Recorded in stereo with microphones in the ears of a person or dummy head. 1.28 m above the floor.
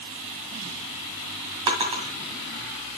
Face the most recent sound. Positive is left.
turn(degrees=-20)  # may be behind; listen again after turning